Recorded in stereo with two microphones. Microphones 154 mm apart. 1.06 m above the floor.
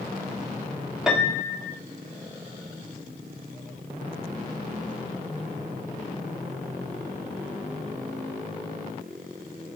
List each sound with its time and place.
1.1 s a piano: 5° right (ahead or behind), 1.7 m